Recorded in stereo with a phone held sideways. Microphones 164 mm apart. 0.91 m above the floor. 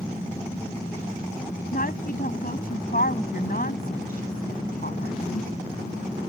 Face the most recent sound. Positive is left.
turn(degrees=55)  # may be behind; listen again after turning